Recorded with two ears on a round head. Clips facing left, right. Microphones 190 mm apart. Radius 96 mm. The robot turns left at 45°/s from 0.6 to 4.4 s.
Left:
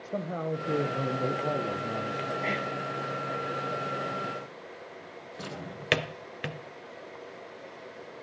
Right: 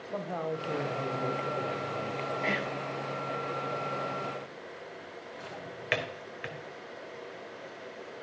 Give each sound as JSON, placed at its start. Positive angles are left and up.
{"t": 0.1, "sound": "a man speaking", "azimuth_deg": 155, "distance_m": 0.6}
{"t": 2.4, "sound": "whispering", "side_deg": 0, "distance_m": 0.7}
{"t": 5.4, "sound": "a drawer", "side_deg": 45, "distance_m": 0.5}